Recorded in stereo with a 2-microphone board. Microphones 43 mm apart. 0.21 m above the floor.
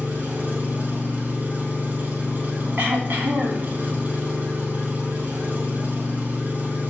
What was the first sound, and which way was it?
An engine running, 45° right (ahead or behind).